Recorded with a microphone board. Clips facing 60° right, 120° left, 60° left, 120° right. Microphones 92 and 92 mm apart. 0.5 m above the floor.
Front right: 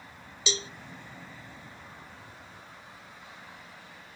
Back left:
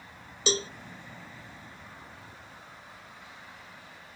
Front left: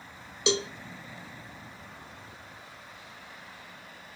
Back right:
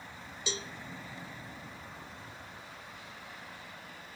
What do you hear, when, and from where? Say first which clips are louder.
0.5 s a cowbell: back left 5 dB, front left 12 dB; 75° left, 0.5 m